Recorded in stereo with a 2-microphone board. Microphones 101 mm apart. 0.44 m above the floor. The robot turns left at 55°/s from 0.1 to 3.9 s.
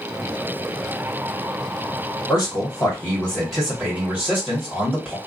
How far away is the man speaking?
About 1.6 m.